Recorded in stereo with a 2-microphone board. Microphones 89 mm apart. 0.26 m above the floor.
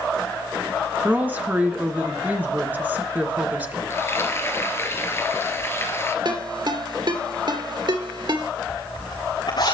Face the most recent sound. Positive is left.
turn(degrees=60)  # may be behind; listen again after turning